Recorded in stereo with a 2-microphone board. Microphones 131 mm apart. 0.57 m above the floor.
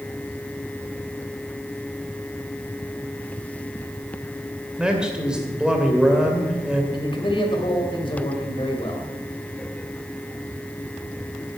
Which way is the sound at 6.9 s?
40° left (ahead or behind).